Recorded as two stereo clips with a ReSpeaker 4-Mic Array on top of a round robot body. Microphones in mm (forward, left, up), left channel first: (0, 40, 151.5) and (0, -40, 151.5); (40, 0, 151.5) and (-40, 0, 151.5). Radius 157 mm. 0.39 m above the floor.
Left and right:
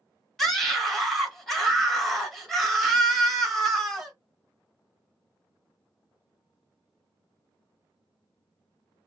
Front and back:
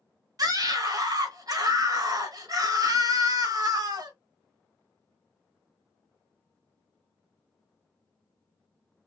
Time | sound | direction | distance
0.4 | a scream | 175° left | 1.8 m